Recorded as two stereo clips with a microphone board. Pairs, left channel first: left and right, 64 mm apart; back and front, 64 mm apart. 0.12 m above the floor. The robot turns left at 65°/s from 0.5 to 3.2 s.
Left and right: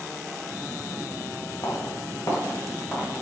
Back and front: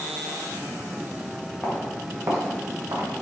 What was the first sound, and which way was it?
Footsteps, 110° left.